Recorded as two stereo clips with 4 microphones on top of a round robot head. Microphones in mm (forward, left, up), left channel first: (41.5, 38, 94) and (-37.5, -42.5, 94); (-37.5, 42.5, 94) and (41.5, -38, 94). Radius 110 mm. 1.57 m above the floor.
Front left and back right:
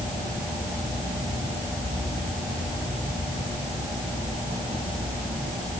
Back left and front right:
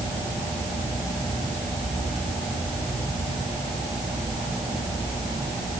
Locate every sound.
Only background noise.